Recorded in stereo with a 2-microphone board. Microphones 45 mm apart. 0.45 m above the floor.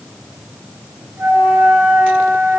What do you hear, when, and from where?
1.2 s a flute: 60° right (ahead or behind), 6.5 m